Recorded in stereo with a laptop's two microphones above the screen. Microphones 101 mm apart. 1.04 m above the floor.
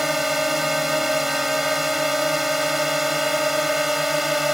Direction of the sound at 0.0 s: Centre (ahead or behind).